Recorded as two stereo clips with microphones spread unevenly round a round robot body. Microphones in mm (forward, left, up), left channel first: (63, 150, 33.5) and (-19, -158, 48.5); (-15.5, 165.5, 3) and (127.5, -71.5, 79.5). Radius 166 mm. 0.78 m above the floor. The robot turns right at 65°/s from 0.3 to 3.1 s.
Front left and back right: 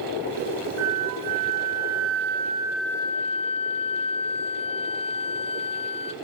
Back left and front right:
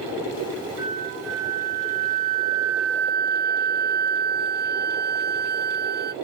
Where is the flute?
145° right, 0.6 m; by 6.1 s 5° left, 0.6 m.